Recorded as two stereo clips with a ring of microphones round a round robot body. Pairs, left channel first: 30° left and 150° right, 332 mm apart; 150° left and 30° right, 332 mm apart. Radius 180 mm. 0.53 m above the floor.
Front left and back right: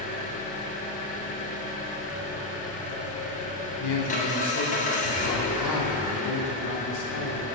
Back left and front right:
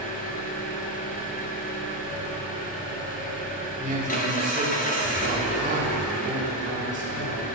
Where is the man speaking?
30° left, 1.4 m.